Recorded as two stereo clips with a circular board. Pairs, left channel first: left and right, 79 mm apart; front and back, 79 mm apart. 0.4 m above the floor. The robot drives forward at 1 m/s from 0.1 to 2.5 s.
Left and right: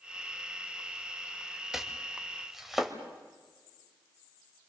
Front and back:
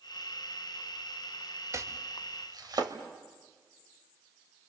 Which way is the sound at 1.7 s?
170° right.